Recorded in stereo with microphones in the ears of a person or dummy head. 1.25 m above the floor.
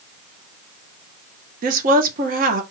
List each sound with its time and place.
1.6 s a woman speaking: 45° right (ahead or behind), 1.1 m